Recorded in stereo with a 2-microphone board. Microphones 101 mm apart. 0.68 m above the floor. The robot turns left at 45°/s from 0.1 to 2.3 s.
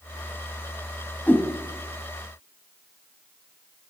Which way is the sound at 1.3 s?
15° left (ahead or behind).